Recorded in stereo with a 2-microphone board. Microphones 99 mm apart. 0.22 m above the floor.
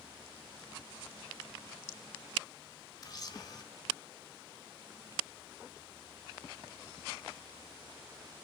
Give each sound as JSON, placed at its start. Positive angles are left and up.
{"t": 3.0, "sound": "a camera shutter", "side_deg": 40, "distance_m": 2.0}